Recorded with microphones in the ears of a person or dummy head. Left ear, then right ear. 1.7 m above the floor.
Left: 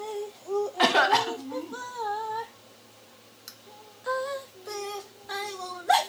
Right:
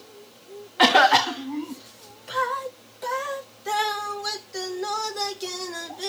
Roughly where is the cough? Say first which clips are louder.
Right 6 dB; centre.